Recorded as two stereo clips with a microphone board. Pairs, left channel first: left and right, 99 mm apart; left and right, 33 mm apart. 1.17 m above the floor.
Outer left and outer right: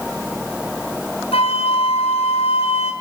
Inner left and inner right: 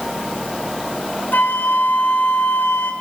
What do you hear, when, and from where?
1.3 s a flute: 80° left, 3.5 m